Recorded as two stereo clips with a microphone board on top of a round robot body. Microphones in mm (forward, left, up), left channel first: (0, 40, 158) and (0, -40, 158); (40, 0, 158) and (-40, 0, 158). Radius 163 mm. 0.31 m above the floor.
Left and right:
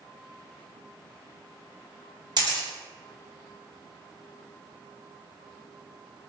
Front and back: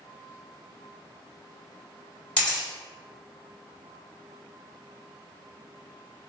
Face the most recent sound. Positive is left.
turn(degrees=-75)